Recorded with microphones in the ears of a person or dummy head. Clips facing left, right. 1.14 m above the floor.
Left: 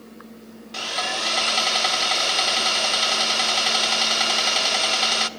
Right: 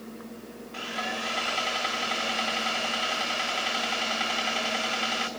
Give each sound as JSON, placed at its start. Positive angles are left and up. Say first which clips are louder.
{"t": 0.7, "sound": "sawing", "louder": "left 4 dB", "side_deg": 60, "distance_m": 1.0}